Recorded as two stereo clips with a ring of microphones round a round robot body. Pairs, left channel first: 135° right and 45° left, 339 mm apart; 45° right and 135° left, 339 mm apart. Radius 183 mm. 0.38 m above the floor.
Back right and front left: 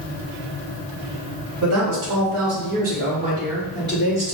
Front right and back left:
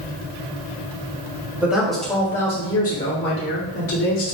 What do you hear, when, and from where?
1.6 s a woman speaking: 55° left, 1.5 m; by 4.3 s 35° right, 1.7 m